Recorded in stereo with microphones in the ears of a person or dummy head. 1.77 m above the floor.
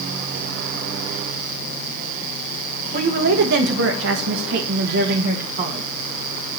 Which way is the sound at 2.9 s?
55° right (ahead or behind).